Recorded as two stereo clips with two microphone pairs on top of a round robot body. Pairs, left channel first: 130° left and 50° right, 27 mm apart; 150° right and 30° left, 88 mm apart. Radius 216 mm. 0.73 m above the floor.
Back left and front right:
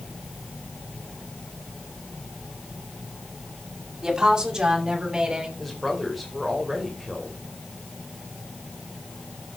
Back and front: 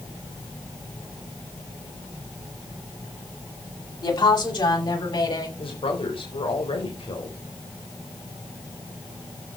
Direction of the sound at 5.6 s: 150° right.